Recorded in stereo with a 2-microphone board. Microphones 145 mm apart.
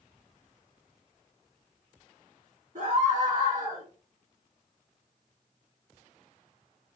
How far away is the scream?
About 2.5 m.